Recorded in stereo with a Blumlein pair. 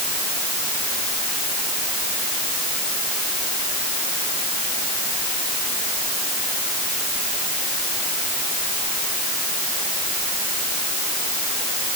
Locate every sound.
Only background noise.